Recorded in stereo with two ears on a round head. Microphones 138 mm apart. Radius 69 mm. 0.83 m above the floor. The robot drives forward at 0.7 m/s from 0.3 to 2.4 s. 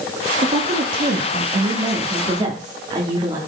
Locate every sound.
0.4 s a woman speaking: 50° right (ahead or behind), 1.2 m; by 3.4 s 25° right (ahead or behind), 2 m